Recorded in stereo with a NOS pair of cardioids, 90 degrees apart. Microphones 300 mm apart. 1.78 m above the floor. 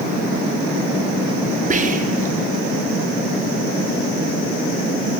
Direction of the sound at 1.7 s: 25° right.